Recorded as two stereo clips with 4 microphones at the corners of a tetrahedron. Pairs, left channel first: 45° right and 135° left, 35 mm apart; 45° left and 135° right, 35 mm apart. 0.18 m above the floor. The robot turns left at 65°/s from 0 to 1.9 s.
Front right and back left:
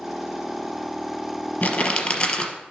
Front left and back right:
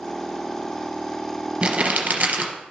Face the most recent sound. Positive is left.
turn(degrees=-95)